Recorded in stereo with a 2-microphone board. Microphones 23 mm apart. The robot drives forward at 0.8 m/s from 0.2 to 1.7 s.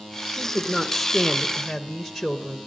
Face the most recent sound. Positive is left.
turn(degrees=0)  # may be behind; listen again after turning